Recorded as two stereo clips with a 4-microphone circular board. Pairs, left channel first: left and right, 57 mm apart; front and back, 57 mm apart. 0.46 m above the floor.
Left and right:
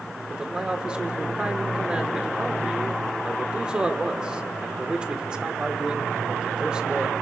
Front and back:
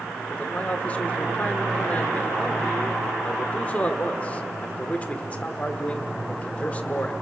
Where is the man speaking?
35° right, 1.5 m.